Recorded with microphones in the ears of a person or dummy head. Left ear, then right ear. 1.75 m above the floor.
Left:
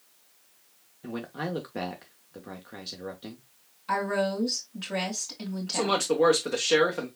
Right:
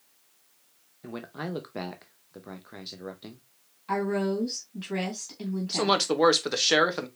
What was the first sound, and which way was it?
A man speaking, 10° right (ahead or behind).